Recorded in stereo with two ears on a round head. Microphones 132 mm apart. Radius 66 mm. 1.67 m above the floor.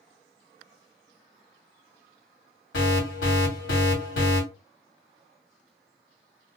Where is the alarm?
85° left, 1.7 m.